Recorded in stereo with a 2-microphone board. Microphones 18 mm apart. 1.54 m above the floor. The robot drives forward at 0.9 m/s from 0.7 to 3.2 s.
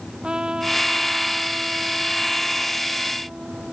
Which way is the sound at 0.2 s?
65° right (ahead or behind).